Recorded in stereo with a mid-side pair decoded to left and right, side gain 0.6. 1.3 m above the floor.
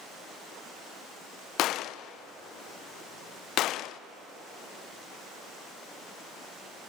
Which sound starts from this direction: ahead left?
A gunshot, at 1.6 s.